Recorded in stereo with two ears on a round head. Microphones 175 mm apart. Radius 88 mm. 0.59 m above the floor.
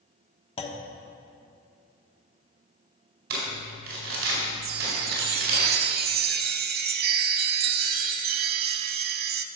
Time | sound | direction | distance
0.6 | a clunk | 30° left (ahead or behind) | 1.1 m
3.3 | crumpling | 55° right (ahead or behind) | 4 m
4.6 | a chime | 50° right (ahead or behind) | 0.6 m